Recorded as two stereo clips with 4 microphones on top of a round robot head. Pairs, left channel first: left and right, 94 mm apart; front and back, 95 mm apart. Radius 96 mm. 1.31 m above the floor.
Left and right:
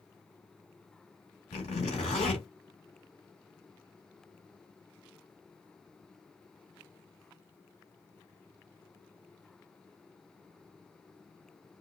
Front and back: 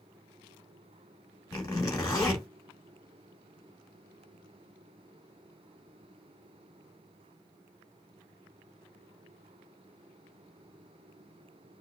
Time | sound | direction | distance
1.5 | a zipper | 50° left | 1.7 m